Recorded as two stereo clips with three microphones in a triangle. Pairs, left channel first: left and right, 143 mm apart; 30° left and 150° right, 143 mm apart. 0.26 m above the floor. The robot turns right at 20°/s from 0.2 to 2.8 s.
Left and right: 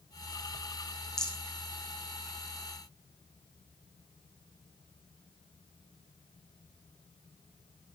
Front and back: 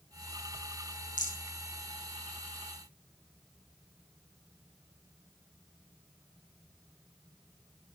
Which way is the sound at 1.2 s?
5° left.